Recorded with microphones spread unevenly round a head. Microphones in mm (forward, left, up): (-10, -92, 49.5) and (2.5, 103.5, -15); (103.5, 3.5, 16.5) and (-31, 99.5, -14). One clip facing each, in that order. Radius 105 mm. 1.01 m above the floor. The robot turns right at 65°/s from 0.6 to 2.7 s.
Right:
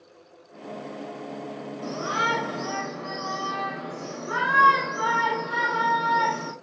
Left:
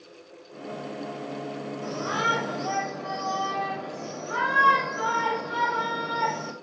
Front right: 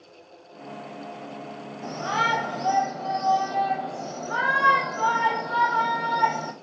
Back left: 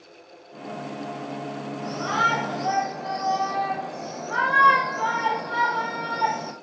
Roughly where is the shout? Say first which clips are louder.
Right 1 dB, even; behind.